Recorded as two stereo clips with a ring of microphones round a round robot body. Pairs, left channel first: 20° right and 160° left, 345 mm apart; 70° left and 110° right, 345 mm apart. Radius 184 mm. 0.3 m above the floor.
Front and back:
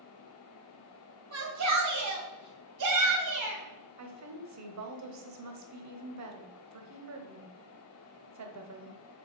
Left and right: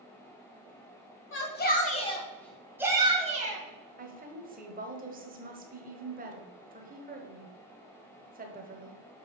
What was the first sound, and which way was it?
A shout, 115° left.